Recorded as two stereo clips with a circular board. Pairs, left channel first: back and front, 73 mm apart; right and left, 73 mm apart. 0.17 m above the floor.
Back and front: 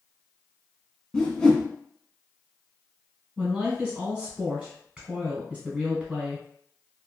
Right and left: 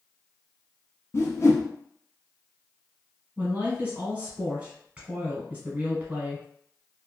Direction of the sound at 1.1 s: 105° right.